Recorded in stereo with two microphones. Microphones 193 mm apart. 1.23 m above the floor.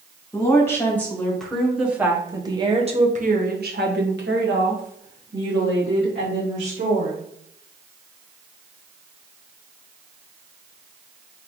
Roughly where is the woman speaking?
Centre.